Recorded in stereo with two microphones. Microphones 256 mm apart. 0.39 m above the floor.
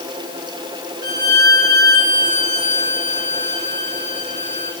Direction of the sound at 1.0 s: 40° left (ahead or behind).